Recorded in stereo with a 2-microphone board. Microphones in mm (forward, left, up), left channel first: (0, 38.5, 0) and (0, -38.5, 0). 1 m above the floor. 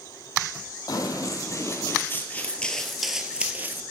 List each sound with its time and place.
0.9 s running footsteps: 55° left (ahead or behind), 1.7 m; by 3.8 s 25° right (ahead or behind), 1.1 m